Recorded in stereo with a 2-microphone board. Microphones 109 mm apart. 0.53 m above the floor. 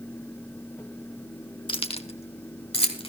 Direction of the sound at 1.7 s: 50° left (ahead or behind).